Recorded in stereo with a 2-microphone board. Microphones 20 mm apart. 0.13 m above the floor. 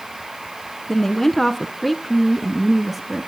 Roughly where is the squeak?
No squeak in this recording.